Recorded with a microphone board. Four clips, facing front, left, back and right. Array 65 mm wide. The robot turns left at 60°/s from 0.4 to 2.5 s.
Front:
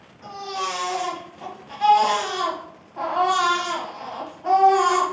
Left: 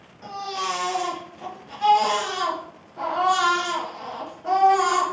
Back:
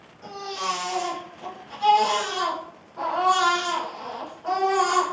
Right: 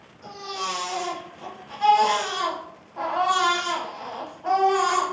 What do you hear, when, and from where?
0.2 s a baby crying: 85° left, 1.5 m; by 5.0 s 40° right, 1.5 m